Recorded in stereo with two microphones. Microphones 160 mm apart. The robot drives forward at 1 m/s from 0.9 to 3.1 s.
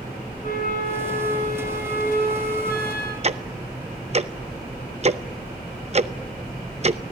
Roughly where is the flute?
Left.